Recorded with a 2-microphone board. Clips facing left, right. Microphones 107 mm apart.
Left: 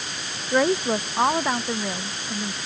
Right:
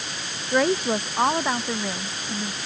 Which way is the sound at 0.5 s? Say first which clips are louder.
Left 1 dB; 5° left (ahead or behind).